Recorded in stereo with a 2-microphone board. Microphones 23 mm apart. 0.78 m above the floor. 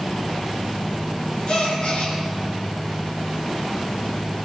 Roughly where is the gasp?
Left.